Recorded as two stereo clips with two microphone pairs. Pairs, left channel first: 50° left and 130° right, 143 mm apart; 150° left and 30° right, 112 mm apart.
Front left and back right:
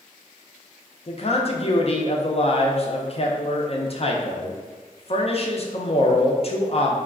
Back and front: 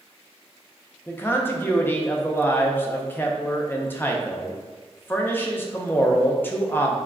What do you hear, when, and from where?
1.1 s a man speaking: 80° left, 0.5 m